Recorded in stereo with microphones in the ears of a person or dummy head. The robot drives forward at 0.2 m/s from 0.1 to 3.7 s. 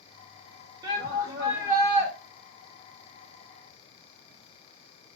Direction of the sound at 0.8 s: 25° right (ahead or behind).